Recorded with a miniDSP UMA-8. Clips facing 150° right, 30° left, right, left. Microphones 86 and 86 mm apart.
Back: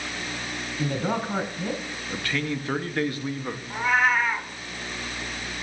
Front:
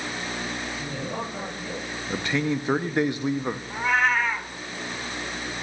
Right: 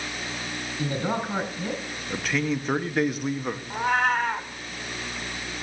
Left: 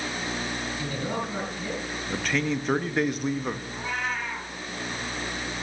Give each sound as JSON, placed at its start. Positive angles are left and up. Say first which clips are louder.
{"t": 0.8, "sound": "a man speaking", "louder": "back 5 dB, right 6 dB", "azimuth_deg": -140, "distance_m": 3.0}
{"t": 2.1, "sound": "a man speaking", "louder": "front 4 dB, right 1 dB", "azimuth_deg": -10, "distance_m": 0.6}
{"t": 3.7, "sound": "a cat meowing", "louder": "back 1 dB, right 8 dB", "azimuth_deg": -65, "distance_m": 1.2}